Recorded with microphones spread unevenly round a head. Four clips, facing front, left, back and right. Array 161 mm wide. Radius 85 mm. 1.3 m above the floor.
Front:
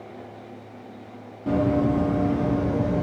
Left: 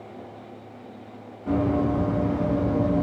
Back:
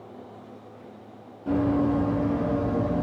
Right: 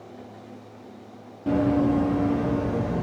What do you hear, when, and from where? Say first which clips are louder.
1.5 s running footsteps: right 2 dB, front 1 dB; 60° right, 1.8 m; by 3.0 s 35° right, 2 m